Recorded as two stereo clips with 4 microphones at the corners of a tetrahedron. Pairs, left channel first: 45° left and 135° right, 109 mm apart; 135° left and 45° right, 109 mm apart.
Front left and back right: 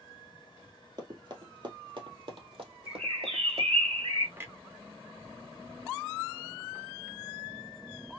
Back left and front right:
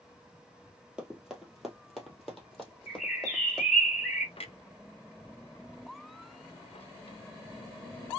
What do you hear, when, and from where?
1.0 s running footsteps: 125° right, 1.8 m; by 3.7 s 145° right, 3 m
2.9 s a bird: 145° right, 2.5 m
4.4 s a clunk: 160° left, 0.7 m